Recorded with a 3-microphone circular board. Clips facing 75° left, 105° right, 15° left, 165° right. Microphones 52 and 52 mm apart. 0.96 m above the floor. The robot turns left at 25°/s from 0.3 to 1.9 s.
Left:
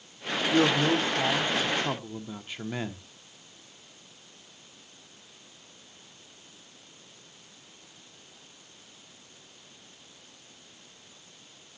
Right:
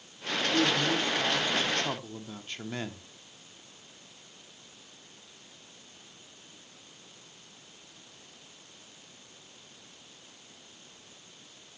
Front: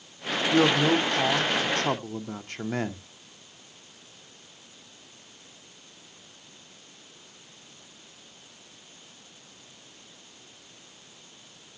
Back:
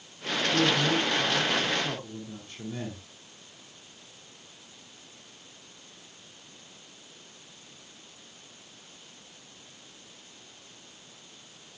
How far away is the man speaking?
About 1.7 m.